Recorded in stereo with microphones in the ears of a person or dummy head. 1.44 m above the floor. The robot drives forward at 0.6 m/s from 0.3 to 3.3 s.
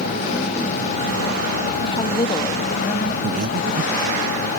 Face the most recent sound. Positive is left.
turn(degrees=-45)  # may be behind; listen again after turning